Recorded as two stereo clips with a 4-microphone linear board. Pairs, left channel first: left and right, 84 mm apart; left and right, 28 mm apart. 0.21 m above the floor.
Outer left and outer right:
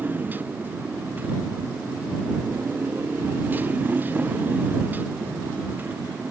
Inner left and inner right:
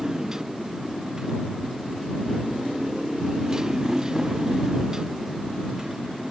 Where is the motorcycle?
25° right (ahead or behind).